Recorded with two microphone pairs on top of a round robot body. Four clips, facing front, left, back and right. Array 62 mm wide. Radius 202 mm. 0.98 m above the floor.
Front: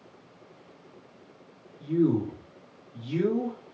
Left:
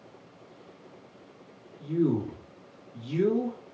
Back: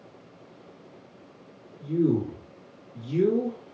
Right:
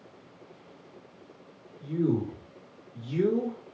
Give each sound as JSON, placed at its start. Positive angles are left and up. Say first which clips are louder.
{"t": 1.8, "sound": "a man speaking", "louder": "left 1 dB, even", "azimuth_deg": 35, "distance_m": 1.9}